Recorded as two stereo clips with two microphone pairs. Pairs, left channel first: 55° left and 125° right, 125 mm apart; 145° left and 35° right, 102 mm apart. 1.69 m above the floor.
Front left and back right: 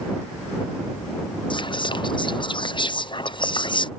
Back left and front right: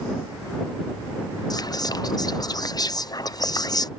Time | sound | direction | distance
1.5 | whispering | 100° left | ?